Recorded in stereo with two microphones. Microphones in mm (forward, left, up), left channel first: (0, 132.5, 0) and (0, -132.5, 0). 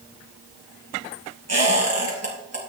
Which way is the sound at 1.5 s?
80° right.